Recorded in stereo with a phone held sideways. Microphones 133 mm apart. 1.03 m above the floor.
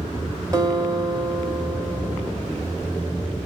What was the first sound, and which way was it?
A guitar, 30° right (ahead or behind).